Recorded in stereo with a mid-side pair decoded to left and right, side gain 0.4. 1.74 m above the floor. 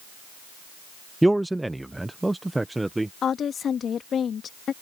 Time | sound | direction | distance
1.2 | a man speaking | 10° right | ?
3.2 | a woman speaking | 60° left | ?